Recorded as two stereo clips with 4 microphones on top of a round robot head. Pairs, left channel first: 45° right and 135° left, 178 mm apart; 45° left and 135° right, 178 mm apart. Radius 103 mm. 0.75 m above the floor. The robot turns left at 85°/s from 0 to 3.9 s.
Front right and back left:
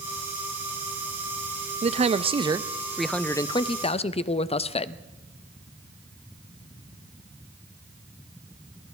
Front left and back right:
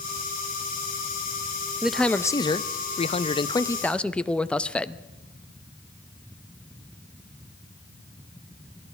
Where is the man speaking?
145° left, 0.7 m; by 5.0 s 30° right, 0.7 m.